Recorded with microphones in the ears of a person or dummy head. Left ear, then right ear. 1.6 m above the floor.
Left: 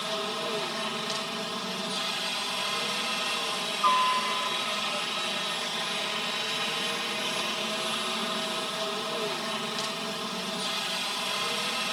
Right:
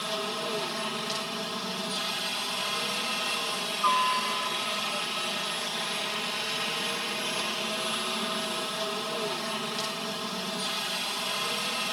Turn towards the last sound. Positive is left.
turn(degrees=10)  # may be behind; listen again after turning